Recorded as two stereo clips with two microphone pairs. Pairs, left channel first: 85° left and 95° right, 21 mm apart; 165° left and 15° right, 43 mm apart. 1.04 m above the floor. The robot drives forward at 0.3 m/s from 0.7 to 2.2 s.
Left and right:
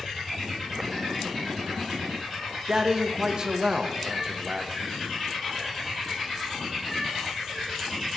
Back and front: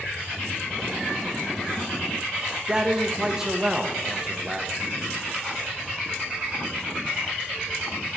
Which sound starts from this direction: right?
A man speaking, at 2.7 s.